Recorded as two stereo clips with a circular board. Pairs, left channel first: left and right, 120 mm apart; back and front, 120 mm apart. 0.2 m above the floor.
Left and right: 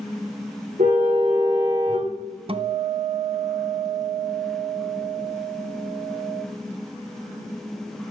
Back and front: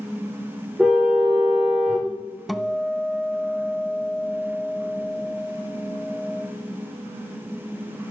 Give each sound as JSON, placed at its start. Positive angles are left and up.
{"t": 0.8, "sound": "a car horn", "azimuth_deg": -85, "distance_m": 7.5}
{"t": 2.5, "sound": "a guitar", "azimuth_deg": -90, "distance_m": 0.8}